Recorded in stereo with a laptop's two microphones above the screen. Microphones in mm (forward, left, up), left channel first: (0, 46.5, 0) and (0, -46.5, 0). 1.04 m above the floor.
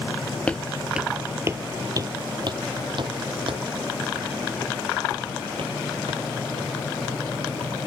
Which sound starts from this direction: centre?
Footsteps, at 0.5 s.